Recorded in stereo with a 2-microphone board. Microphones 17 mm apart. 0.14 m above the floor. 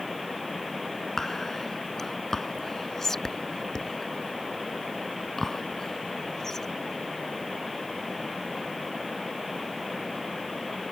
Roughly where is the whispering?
Left.